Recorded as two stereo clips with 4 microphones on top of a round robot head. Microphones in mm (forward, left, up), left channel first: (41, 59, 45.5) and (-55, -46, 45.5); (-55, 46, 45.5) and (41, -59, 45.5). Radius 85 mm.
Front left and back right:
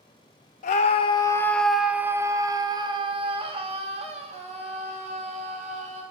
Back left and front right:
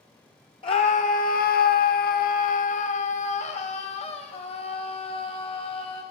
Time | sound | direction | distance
0.6 | a scream | 80° left | 0.6 m